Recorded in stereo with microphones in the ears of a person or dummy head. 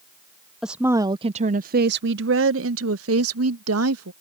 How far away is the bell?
I don't hear a bell.